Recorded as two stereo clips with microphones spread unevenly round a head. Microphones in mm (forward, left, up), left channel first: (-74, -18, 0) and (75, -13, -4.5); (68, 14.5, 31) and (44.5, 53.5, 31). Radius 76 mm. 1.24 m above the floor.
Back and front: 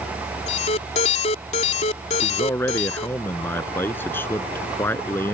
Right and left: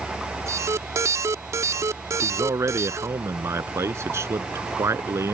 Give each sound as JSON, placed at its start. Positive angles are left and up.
{"t": 0.5, "sound": "an alarm", "azimuth_deg": 130}
{"t": 2.2, "sound": "a man speaking", "azimuth_deg": 105}